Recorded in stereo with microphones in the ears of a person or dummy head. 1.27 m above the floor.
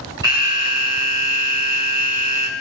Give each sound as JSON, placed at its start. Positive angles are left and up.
{"t": 0.2, "sound": "an alarm", "side_deg": -20, "distance_m": 6.0}